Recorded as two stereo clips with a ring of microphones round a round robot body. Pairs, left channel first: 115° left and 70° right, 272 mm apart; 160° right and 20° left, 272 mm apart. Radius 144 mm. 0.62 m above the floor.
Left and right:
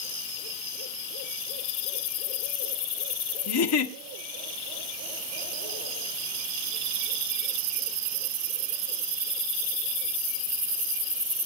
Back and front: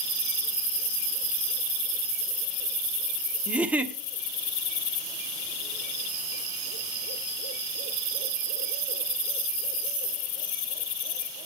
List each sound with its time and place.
3.5 s a giggle: 105° left, 1.5 m